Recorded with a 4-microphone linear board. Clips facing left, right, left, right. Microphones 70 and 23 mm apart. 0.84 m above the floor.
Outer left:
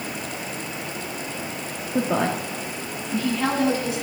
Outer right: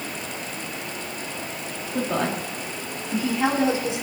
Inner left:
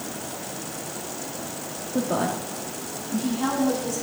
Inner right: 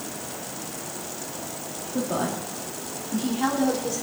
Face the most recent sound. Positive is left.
turn(degrees=-25)  # may be behind; listen again after turning